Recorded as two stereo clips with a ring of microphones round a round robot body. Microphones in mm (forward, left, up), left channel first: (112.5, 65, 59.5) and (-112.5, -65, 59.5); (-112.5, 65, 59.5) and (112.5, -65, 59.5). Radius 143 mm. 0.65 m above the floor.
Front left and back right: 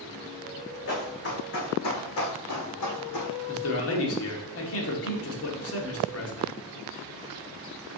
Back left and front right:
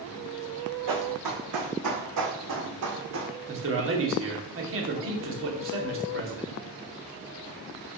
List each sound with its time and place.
0.9 s running footsteps: 20° right, 3 m; by 3.3 s 10° left, 2 m
3.5 s a man speaking: 5° left, 1.9 m